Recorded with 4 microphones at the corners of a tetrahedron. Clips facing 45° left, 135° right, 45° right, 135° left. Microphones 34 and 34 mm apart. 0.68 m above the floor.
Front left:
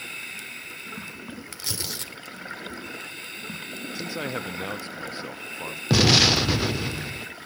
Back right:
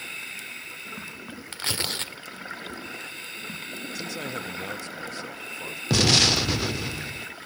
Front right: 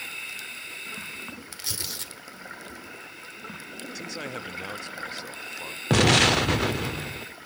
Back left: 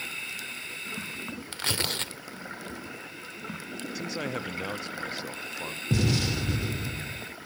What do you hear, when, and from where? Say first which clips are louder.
1.5 s tearing paper: back right 6 dB, back left 8 dB; straight behind, 0.9 m
4.0 s a man speaking: front left 3 dB, back left 3 dB; 60° left, 0.6 m
5.9 s an explosion: front left 2 dB, front right 9 dB; 35° right, 0.5 m